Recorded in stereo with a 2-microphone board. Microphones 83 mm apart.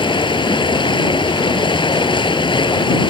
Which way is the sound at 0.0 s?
75° left (ahead or behind).